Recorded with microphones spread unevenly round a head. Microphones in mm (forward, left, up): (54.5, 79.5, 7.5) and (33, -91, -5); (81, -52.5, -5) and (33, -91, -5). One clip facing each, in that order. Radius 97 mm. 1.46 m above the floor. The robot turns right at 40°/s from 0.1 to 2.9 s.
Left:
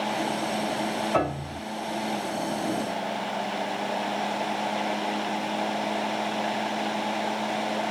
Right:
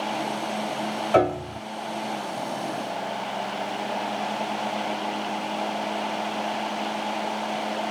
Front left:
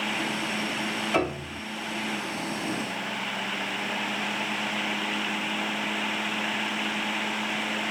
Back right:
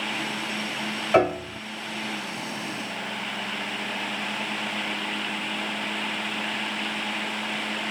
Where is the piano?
95° right, 2.5 m; by 1.6 s 80° right, 2.5 m.